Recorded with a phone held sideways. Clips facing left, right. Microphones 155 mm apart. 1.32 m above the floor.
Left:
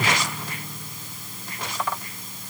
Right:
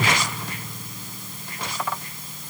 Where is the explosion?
I don't hear an explosion.